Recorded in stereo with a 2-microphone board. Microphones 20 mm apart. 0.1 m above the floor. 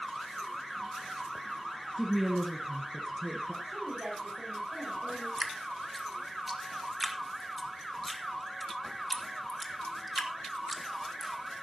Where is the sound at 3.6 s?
35° right (ahead or behind), 6.5 m.